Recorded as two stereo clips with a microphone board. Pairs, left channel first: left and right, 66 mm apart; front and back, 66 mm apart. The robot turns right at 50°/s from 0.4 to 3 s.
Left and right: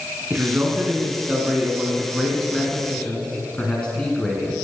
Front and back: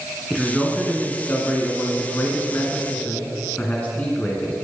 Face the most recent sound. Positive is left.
turn(degrees=30)